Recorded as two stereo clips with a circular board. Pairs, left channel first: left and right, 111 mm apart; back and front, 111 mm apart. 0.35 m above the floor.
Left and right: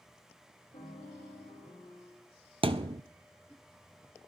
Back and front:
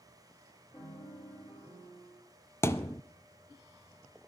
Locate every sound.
0.7 s a piano: 125° left, 9.5 m
2.6 s a thud: 115° right, 0.6 m